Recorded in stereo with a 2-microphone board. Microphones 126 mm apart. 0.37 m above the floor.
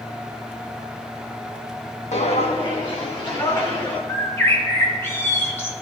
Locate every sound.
2.1 s footsteps: 65° left (ahead or behind), 1.3 m; by 4.0 s 25° left (ahead or behind), 3 m
4.1 s a bird: 20° left (ahead or behind), 1.4 m